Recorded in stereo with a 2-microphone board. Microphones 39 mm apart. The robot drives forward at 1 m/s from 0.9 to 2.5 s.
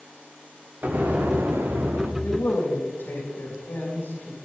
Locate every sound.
0.8 s an explosion: 50° right (ahead or behind), 1.8 m; by 2.1 s 90° right, 1.4 m
2.2 s a man speaking: 60° left (ahead or behind), 3.5 m